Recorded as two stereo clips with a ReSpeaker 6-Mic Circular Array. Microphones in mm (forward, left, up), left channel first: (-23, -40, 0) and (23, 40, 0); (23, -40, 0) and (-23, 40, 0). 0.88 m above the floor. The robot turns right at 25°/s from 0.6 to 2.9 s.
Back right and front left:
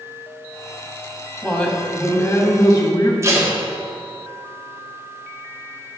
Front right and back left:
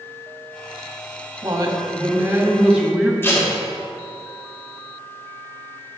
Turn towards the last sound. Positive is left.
turn(degrees=5)